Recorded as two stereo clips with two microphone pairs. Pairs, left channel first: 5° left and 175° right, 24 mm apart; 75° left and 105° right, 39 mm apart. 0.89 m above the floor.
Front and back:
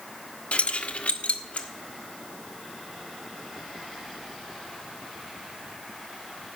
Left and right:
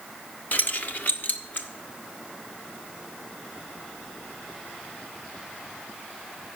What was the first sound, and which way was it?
Keys jangling, 35° left.